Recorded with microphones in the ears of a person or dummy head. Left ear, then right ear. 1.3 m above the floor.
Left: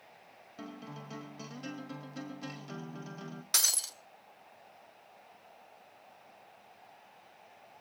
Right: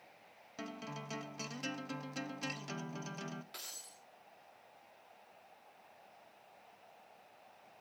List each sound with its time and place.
0.6 s a guitar: 50° right (ahead or behind), 0.8 m
3.5 s breaking glass: 65° left (ahead or behind), 1.5 m